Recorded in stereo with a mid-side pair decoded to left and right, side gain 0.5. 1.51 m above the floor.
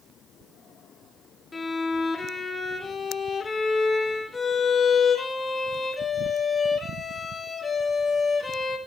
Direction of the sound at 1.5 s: 25° left.